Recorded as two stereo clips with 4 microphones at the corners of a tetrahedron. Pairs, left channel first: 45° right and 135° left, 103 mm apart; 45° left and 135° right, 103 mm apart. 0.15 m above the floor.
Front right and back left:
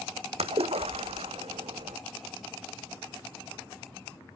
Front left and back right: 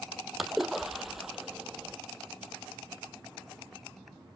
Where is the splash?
135° left, 1.1 m.